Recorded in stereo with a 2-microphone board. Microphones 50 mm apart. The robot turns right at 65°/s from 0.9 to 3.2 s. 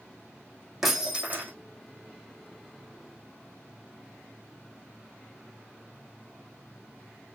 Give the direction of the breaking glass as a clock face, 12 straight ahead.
6 o'clock.